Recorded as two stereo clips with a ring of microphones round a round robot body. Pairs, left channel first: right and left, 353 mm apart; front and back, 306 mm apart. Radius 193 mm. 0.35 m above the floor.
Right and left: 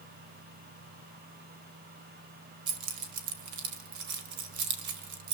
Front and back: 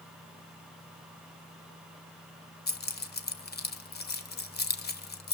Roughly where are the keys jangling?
Ahead left.